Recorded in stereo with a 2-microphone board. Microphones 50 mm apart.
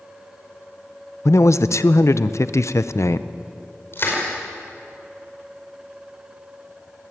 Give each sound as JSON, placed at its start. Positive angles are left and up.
{"t": 1.2, "sound": "a man speaking", "side_deg": 70, "distance_m": 0.7}
{"t": 3.9, "sound": "crushing", "side_deg": 45, "distance_m": 5.0}